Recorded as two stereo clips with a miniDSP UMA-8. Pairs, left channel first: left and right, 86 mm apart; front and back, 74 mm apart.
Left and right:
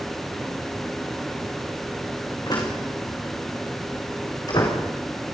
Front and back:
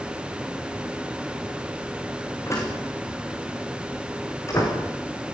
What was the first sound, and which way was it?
A door slam, 50° left.